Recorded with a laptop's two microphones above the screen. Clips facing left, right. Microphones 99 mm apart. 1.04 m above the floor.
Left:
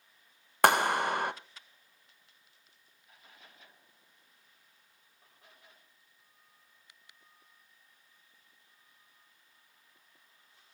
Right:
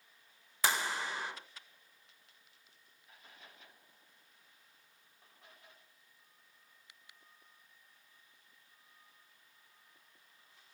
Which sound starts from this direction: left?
A clap, at 0.6 s.